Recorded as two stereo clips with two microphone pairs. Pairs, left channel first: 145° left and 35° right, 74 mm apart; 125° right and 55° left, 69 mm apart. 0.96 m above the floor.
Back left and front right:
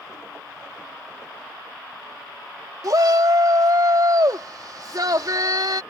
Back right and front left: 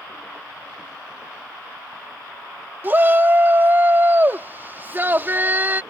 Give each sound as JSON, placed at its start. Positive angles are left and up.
{"t": 2.8, "sound": "a shout", "azimuth_deg": -5}